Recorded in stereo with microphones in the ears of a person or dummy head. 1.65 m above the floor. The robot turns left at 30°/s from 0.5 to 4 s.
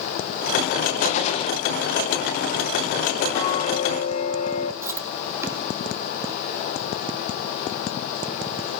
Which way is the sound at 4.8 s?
15° right (ahead or behind).